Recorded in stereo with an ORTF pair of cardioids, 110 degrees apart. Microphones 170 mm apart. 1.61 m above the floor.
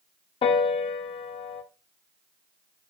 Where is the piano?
35° left, 0.5 m.